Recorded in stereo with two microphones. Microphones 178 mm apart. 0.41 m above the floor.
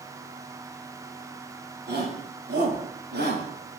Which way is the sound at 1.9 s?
75° right (ahead or behind).